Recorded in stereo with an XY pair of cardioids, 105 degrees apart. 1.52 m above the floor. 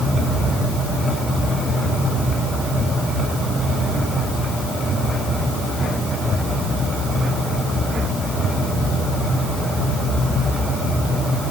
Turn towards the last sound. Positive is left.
No sound to turn to.